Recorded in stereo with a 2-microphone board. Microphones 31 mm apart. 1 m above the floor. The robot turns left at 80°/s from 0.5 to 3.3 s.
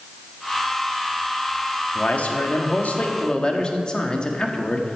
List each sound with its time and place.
1.9 s a man speaking: 140° left, 1.5 m; by 5.0 s 35° left, 1.5 m